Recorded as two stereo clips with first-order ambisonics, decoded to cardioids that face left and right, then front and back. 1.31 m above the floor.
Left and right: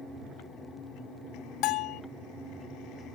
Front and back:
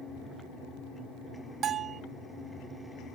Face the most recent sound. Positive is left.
turn(degrees=125)